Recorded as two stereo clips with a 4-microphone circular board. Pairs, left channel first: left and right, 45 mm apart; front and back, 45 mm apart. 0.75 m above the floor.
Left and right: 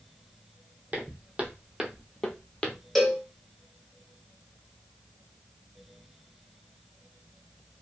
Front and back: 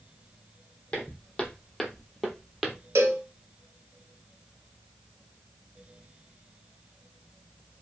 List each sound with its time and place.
0.9 s footsteps: 55° right, 1.0 m; by 2.8 s 115° left, 0.8 m
3.0 s a cowbell: 175° left, 0.6 m